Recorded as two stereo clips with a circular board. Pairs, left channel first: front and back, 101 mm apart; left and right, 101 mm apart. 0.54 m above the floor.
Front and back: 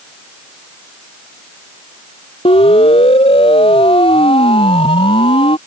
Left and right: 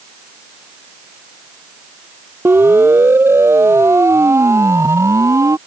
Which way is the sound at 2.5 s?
20° right.